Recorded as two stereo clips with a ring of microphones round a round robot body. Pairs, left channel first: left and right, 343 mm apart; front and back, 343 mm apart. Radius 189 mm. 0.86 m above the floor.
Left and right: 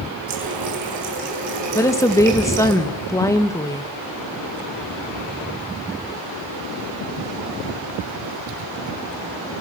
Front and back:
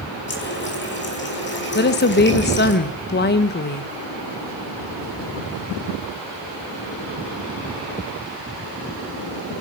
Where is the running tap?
60° right, 4.5 m.